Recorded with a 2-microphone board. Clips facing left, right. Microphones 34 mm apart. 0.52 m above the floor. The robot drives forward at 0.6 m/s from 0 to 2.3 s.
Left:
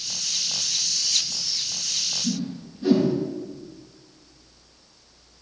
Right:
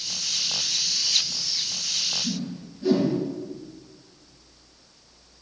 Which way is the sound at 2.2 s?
25° left (ahead or behind).